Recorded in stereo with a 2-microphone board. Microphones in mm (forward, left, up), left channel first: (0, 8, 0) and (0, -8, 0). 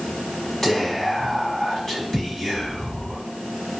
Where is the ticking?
I don't hear ticking.